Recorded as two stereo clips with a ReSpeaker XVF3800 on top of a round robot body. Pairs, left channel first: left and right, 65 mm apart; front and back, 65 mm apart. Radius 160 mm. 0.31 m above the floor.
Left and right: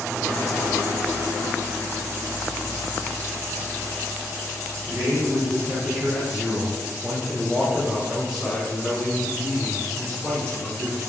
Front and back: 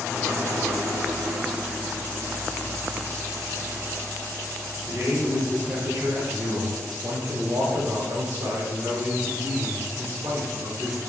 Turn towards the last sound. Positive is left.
turn(degrees=140)